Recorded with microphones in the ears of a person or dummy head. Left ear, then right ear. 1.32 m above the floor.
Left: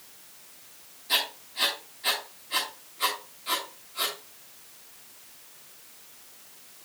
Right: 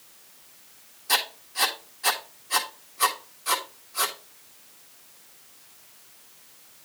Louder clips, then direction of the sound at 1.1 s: Right 2 dB; 50° right (ahead or behind).